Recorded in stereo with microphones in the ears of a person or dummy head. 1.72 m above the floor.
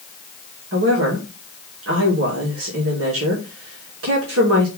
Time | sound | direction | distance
0.7 | a woman speaking | 90° right | 3 m